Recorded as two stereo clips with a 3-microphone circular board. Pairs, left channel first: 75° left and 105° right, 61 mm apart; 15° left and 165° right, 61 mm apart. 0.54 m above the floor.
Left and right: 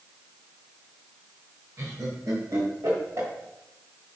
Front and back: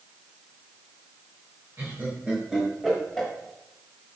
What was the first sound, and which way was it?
Laughter, 125° right.